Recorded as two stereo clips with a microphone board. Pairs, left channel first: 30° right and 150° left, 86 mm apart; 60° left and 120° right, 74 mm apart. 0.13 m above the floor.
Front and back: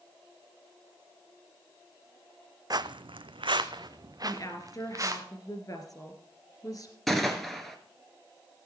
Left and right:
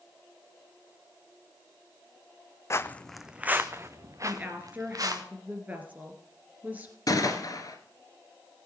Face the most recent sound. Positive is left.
turn(degrees=60)